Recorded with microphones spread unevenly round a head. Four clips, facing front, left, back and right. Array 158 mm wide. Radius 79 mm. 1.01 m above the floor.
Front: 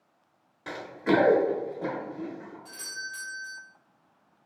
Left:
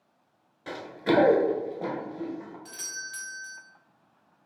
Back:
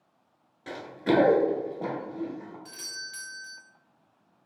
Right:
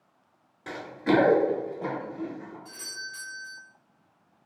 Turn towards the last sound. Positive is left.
turn(degrees=130)